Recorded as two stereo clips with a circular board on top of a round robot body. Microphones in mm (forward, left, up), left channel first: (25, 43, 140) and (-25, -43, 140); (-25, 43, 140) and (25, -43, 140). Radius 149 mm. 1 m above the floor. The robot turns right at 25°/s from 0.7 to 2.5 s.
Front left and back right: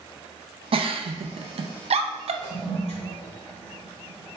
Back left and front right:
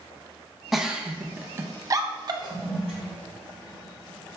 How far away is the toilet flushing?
About 0.6 m.